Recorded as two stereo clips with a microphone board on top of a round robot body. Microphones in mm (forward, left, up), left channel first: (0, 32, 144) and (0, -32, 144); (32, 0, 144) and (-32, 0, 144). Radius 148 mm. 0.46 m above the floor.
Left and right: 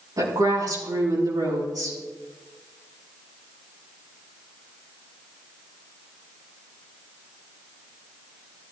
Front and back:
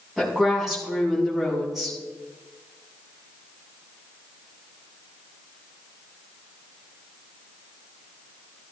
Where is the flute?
No flute in this recording.